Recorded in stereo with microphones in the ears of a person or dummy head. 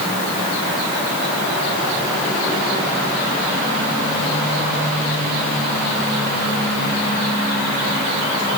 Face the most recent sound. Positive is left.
No sound to turn to.